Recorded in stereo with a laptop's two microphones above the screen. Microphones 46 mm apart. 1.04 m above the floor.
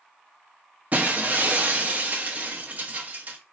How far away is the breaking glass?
About 0.7 m.